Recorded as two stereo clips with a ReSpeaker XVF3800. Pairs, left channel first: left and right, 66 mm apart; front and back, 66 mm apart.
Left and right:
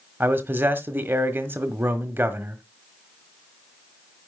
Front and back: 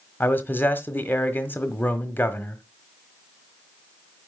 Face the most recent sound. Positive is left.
turn(degrees=-45)